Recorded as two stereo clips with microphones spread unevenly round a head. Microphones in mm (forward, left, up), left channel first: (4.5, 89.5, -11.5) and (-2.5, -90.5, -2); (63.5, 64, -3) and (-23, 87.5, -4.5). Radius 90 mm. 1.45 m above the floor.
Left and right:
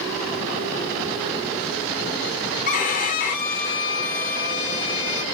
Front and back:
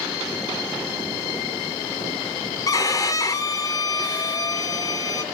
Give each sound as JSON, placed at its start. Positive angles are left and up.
{"t": 2.7, "sound": "a violin", "azimuth_deg": 40, "distance_m": 0.5}